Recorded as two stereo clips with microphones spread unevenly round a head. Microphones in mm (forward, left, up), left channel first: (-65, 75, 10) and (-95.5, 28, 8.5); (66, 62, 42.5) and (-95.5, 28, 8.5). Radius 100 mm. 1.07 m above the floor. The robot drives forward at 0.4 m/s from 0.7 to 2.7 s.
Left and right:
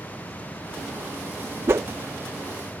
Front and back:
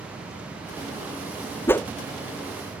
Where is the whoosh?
70° right; by 1.9 s 80° right.